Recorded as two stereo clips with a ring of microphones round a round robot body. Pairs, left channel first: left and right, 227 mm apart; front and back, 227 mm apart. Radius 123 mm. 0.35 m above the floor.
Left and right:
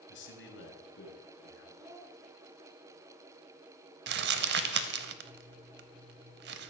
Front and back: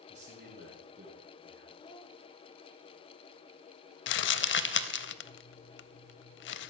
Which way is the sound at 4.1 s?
40° right.